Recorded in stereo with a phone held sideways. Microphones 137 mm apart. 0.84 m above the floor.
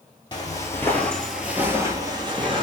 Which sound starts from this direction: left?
Footsteps, at 0.3 s.